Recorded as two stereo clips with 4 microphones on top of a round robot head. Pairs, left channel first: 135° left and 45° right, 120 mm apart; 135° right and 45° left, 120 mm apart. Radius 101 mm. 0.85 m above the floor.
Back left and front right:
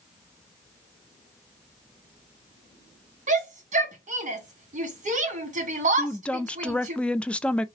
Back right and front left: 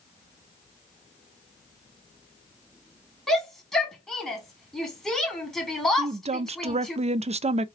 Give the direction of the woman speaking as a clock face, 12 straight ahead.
10 o'clock.